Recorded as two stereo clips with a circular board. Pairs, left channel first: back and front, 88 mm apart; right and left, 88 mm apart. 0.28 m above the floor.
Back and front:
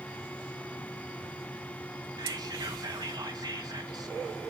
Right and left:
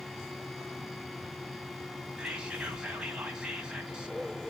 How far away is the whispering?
About 2 m.